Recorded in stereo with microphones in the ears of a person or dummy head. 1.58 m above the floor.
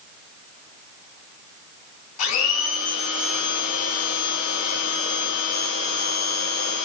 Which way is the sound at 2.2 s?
85° left.